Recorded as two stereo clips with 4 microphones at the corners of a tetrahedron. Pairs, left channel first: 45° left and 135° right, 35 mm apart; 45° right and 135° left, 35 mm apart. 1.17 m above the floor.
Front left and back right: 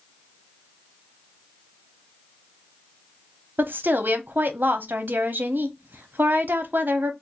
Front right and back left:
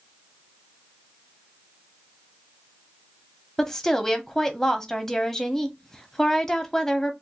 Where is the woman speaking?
125° right, 0.8 m.